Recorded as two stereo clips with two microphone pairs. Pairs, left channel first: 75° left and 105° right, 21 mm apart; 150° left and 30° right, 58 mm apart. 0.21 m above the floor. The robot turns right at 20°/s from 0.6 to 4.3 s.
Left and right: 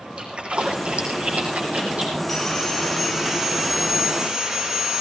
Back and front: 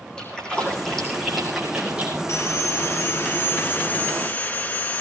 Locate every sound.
0.2 s a splash: 135° right, 5.5 m; by 2.2 s 105° right, 5.5 m
2.3 s sawing: 165° left, 2.5 m; by 5.0 s 155° right, 2.5 m